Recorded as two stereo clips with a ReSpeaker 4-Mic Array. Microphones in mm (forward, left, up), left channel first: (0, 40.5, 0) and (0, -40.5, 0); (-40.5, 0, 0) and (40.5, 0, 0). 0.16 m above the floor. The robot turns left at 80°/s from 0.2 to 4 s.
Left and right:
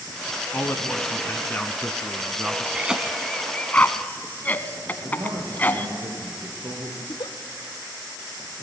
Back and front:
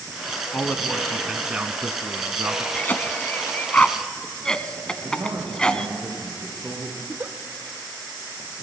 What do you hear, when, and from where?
0.5 s a man speaking: 135° left, 1.2 m; by 2.6 s 35° right, 1.2 m
2.7 s a cough: 145° right, 1.2 m; by 5.9 s 115° left, 1.2 m
5.0 s a man speaking: 70° right, 5 m
7.0 s a giggle: 65° left, 1.4 m